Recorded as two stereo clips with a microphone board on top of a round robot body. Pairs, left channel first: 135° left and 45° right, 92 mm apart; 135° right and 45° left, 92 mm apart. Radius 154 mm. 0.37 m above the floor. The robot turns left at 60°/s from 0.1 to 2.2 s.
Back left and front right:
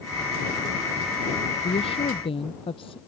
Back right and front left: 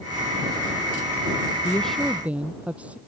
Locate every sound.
1.6 s a woman speaking: 155° left; by 3.0 s 120° left